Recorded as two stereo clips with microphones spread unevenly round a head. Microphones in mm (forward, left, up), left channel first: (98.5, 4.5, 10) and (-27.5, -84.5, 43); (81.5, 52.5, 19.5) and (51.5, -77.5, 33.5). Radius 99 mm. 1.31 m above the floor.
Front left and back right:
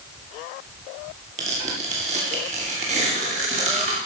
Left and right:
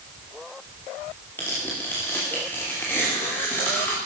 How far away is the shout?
I don't hear a shout.